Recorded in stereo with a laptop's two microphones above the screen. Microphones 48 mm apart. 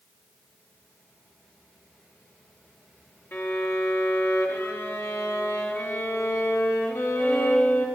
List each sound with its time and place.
3.3 s a violin: 60° left (ahead or behind), 0.8 m